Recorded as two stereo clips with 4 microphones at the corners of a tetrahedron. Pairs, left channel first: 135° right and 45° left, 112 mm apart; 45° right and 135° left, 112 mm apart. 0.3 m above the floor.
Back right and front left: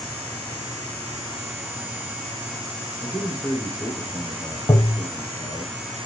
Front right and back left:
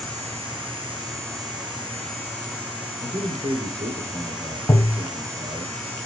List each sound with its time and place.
3.0 s a man speaking: 125° left, 4 m
4.7 s tapping: 90° right, 0.8 m